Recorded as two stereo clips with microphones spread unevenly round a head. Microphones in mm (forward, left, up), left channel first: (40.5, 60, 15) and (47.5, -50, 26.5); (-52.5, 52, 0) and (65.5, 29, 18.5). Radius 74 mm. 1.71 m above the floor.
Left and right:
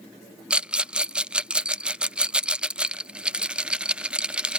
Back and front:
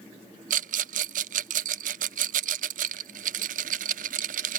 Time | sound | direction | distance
0.5 | a rattle | 5° right | ?